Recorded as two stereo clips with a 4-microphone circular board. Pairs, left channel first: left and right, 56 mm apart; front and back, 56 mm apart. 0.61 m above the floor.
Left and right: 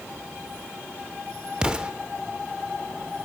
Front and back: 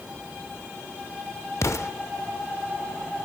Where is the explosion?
20° right, 0.8 m.